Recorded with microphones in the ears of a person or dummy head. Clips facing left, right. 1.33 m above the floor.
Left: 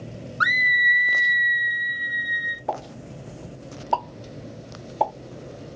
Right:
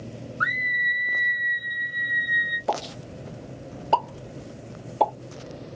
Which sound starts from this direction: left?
A scream, at 0.4 s.